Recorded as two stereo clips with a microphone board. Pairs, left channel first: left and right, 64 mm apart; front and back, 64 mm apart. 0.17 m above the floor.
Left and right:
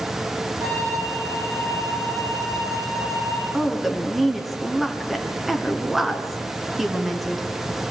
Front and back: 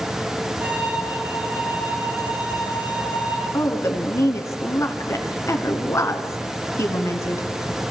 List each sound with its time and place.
0.6 s a violin: 115° right, 7.5 m
3.5 s a woman speaking: 5° right, 1.8 m